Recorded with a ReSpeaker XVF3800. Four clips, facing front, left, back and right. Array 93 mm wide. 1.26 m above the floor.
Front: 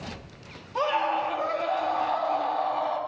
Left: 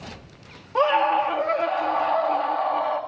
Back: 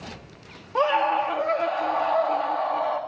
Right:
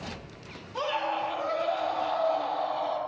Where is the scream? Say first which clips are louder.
Left 10 dB, back 4 dB; 140° left, 1.9 m.